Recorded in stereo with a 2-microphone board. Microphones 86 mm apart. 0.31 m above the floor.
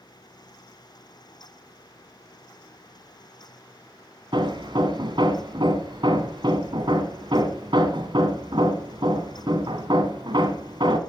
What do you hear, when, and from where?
4.3 s hammering: 65° right (ahead or behind), 1.4 m